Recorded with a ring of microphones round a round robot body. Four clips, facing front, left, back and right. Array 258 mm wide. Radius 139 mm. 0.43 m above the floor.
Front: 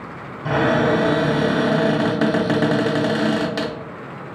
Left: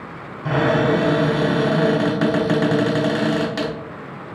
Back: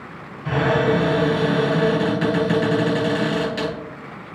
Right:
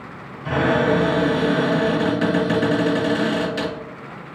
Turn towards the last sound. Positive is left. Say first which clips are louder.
# left 1 dB, front 1 dB
turn(degrees=35)